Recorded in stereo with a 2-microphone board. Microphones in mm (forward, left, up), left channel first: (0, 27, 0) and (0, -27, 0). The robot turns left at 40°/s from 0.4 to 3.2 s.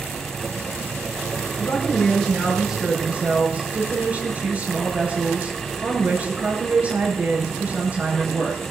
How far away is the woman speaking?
About 6.5 m.